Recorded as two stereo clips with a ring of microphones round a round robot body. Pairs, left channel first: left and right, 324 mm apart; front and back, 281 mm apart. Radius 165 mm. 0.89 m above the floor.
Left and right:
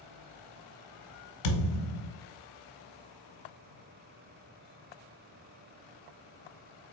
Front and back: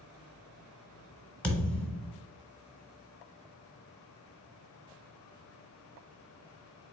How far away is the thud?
About 1.3 m.